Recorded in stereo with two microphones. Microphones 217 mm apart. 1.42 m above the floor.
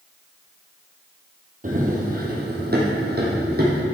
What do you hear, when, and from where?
1.6 s running footsteps: 40° right (ahead or behind), 1.8 m; by 3.8 s 45° right (ahead or behind), 2.5 m